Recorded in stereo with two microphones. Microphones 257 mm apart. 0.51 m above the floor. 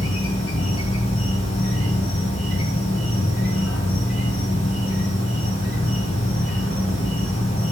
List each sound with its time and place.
0.0 s an insect: 60° left (ahead or behind), 1.7 m